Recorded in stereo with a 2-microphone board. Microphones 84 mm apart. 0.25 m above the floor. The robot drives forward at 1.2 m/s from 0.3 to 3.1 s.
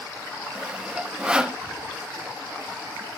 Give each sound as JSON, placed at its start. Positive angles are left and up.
{"t": 0.6, "sound": "sawing", "side_deg": -10, "distance_m": 1.0}